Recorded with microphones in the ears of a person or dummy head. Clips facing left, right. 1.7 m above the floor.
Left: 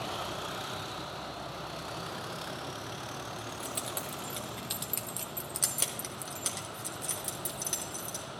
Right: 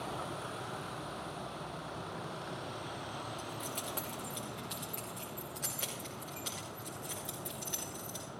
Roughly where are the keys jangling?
Centre.